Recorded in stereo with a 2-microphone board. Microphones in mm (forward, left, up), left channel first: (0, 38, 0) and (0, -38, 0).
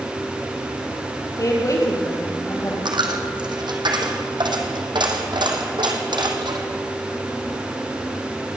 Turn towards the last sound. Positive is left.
turn(degrees=-75)  # may be behind; listen again after turning